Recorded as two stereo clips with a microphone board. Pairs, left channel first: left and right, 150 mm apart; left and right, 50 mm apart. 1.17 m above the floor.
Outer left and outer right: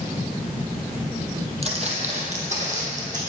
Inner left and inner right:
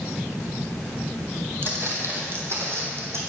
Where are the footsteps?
45° right (ahead or behind), 1.5 m; by 3.2 s 55° right (ahead or behind), 2.5 m.